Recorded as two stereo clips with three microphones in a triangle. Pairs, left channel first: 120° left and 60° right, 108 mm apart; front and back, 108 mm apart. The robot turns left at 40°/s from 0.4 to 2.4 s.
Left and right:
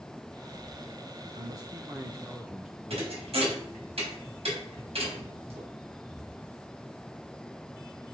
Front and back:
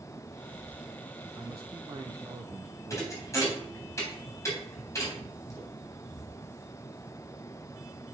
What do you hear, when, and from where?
1.4 s a man speaking: 105° right, 0.9 m; by 3.2 s 145° right, 0.9 m
2.9 s a thud: 60° right, 3.5 m